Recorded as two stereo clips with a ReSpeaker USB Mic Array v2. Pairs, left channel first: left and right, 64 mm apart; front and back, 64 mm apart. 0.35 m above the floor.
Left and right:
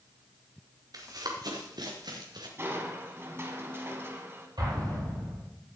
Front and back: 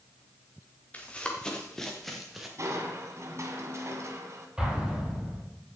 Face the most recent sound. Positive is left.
turn(degrees=-100)